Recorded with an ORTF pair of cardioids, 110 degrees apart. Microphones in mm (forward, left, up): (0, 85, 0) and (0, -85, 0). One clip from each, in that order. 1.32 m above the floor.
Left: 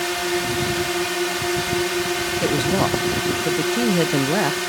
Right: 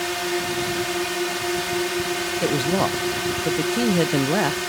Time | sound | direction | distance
0.0 | a drone | 15° left | ?
2.4 | a woman speaking | straight ahead | ?